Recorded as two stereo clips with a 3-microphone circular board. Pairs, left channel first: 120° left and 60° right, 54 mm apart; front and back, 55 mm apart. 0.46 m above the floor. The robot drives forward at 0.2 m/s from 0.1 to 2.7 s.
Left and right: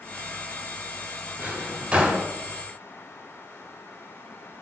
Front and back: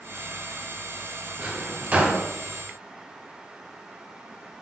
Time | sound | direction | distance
1.4 | a drawer | 115° right | 0.6 m